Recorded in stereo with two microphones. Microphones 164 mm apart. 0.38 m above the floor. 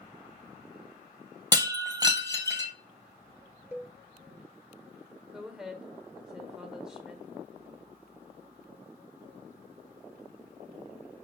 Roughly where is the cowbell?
Centre.